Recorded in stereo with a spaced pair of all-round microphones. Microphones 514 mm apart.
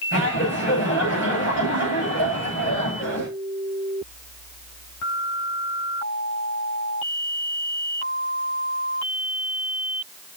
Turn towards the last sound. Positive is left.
turn(degrees=20)  # may be behind; listen again after turning